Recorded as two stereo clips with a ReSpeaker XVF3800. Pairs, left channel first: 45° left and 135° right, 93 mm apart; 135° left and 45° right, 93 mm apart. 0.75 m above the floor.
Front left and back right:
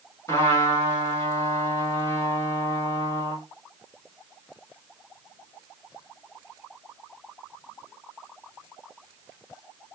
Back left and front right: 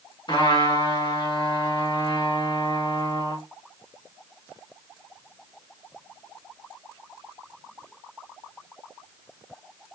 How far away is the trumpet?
About 1.9 m.